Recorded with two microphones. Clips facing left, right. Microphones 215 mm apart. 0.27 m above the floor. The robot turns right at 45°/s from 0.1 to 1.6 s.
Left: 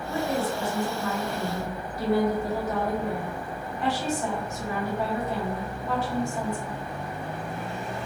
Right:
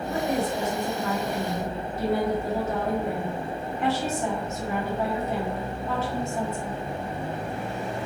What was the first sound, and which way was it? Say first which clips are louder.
A woman speaking: right 1 dB; 100° right.